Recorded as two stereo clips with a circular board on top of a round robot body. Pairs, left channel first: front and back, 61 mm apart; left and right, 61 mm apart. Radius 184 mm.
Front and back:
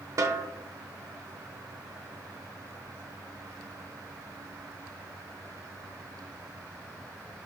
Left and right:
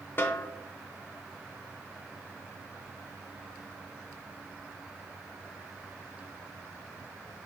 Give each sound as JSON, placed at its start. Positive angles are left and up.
{"t": 0.2, "sound": "a snare drum", "azimuth_deg": 145, "distance_m": 0.9}